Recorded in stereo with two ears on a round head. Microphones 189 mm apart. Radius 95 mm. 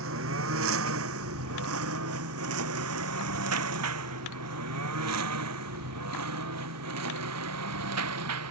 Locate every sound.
0.0 s a lawn mower: 70° right (ahead or behind); by 8.5 s 85° right